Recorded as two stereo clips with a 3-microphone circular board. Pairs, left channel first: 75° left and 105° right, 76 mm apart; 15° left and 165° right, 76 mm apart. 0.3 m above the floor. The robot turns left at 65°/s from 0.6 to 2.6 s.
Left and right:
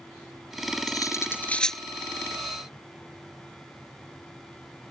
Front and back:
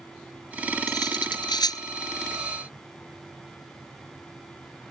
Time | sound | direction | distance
0.9 | cutlery clinking | 45° left | ?